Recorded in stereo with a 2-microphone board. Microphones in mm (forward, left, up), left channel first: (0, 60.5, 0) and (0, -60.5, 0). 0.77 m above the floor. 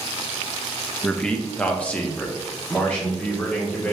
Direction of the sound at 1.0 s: 5° left (ahead or behind).